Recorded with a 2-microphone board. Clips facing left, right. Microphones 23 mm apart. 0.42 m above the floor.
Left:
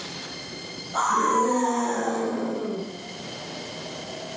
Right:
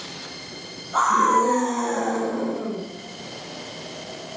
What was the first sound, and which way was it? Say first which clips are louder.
A scream: right 4 dB; 60° right (ahead or behind).